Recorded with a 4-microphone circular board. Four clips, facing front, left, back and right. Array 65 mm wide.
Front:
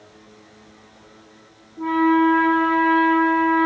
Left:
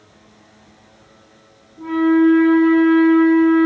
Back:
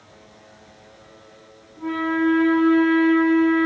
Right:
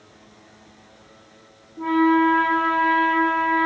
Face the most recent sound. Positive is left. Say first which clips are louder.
# left 3 dB, front 5 dB
turn(degrees=-65)